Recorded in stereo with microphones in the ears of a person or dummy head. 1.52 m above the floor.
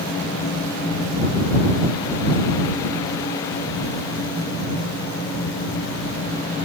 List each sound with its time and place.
Only background noise.